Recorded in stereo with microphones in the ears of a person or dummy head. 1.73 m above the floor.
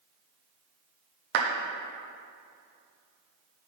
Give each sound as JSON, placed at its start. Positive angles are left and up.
{"t": 1.3, "sound": "a clap", "side_deg": -60, "distance_m": 1.0}